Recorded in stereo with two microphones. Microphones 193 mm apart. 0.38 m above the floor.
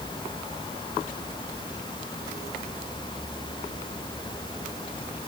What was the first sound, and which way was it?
Only background noise.